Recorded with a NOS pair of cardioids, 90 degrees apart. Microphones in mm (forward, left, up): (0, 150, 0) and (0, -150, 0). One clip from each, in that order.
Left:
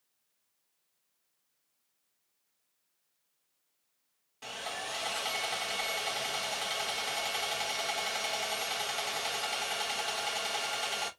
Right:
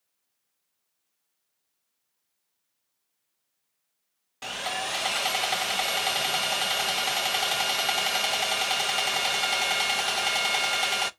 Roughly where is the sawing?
Ahead right.